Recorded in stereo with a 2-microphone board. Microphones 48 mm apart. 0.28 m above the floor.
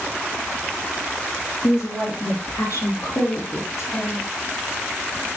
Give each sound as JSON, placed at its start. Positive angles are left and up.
{"t": 1.6, "sound": "a woman speaking", "side_deg": 70, "distance_m": 4.5}